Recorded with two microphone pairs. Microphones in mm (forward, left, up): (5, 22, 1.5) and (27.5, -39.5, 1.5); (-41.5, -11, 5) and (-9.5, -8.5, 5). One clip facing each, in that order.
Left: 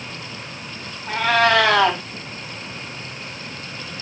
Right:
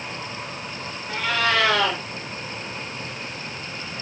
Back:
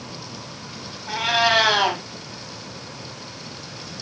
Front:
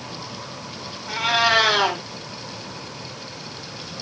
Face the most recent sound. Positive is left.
turn(degrees=105)